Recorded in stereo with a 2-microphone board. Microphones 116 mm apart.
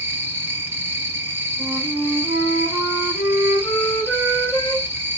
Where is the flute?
15° left (ahead or behind), 1.8 m.